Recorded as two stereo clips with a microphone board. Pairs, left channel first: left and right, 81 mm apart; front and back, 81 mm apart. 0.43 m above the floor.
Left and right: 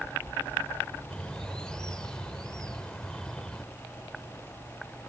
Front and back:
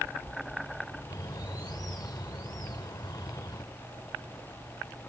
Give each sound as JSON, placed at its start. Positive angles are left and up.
{"t": 1.1, "sound": "a bird", "azimuth_deg": 10}